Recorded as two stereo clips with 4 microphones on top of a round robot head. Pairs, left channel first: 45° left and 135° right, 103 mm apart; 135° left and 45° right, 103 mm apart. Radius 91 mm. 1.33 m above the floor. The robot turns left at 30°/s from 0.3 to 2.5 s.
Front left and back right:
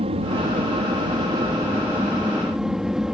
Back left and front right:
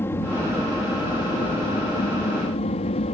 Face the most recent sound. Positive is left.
turn(degrees=140)